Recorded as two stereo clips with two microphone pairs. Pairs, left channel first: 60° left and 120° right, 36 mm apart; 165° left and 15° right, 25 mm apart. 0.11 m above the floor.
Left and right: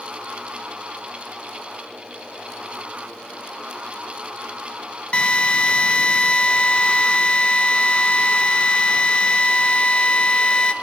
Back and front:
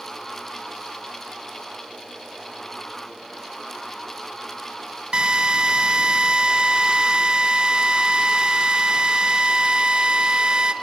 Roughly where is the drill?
Ahead.